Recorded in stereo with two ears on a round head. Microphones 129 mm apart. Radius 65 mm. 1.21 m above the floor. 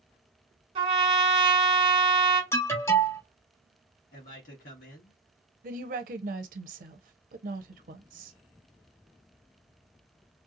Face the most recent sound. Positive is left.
turn(degrees=-55)  # may be behind; listen again after turning